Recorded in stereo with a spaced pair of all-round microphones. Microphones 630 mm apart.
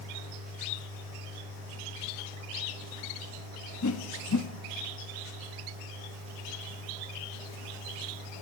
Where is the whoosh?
30° left (ahead or behind), 0.9 m.